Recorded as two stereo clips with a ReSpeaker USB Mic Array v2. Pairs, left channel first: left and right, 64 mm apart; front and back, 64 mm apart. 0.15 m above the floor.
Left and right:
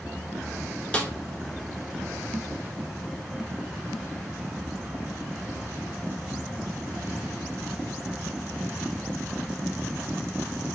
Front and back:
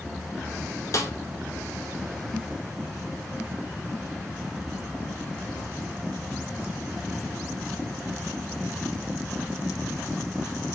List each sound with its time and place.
0.9 s a snare drum: 25° left, 0.9 m